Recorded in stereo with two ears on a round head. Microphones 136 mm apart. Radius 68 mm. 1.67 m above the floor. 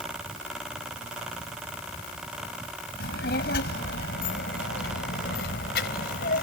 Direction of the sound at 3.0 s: 70° left (ahead or behind).